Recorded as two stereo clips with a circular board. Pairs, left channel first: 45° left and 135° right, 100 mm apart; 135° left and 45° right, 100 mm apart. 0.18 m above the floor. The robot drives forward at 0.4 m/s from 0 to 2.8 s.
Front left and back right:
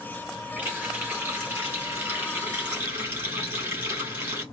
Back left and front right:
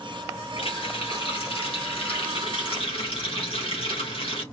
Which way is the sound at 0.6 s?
155° left.